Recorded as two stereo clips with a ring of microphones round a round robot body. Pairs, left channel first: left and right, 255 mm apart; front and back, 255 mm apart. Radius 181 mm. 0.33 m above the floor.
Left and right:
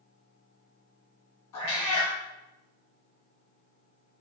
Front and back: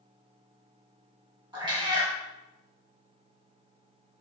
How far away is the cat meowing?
About 1.4 m.